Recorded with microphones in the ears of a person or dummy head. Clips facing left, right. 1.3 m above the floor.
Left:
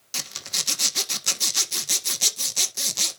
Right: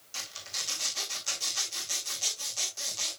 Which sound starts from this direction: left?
A zipper, at 0.1 s.